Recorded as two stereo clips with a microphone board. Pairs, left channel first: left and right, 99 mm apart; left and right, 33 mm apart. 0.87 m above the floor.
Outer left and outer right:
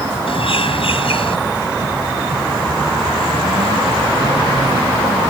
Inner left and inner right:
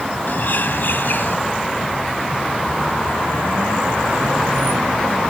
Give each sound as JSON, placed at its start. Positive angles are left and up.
{"t": 0.3, "sound": "a bird", "side_deg": 65}